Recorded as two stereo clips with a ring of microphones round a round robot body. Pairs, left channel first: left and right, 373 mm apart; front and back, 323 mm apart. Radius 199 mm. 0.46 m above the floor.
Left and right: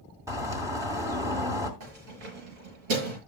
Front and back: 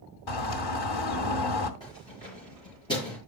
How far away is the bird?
About 2.5 m.